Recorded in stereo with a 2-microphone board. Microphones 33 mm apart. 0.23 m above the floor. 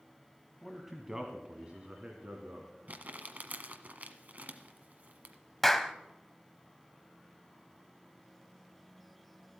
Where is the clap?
5° left (ahead or behind), 0.9 m.